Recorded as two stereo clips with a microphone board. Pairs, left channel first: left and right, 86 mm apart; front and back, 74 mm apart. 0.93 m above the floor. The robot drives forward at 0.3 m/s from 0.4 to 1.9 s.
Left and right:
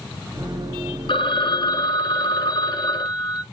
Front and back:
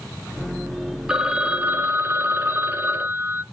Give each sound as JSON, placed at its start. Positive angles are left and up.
{"t": 1.1, "sound": "a phone ringing", "azimuth_deg": 100, "distance_m": 0.6}